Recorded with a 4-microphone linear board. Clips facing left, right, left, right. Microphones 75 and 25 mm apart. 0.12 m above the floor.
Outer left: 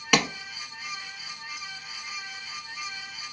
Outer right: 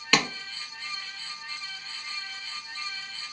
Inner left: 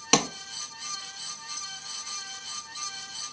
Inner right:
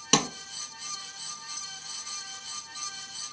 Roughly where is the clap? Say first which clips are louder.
Outer left 1 dB, inner left 1 dB; centre.